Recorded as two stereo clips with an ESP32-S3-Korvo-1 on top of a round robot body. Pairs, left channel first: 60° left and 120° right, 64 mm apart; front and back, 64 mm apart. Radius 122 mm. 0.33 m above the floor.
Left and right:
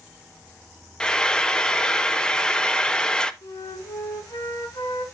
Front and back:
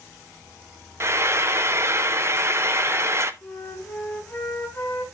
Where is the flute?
70° left, 3 m.